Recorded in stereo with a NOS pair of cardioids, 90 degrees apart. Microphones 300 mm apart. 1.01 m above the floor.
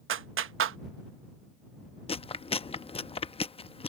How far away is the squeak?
No squeak in this recording.